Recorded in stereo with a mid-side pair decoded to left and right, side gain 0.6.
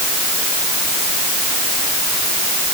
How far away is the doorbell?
No doorbell in this recording.